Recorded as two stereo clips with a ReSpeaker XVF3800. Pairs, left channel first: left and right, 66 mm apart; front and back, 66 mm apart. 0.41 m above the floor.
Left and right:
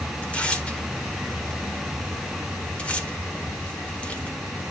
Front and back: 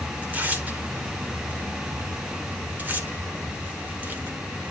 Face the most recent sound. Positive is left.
turn(degrees=145)